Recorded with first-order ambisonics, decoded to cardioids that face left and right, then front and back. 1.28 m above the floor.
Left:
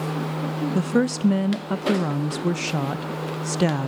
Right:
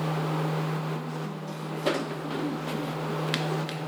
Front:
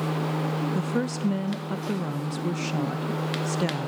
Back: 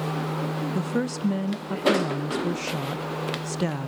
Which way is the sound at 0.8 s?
90° left.